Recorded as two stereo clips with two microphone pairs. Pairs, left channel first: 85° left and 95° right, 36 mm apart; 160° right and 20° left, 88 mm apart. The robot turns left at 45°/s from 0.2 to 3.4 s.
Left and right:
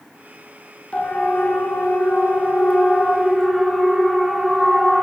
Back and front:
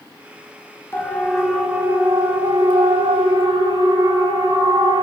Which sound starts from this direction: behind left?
A siren, at 0.9 s.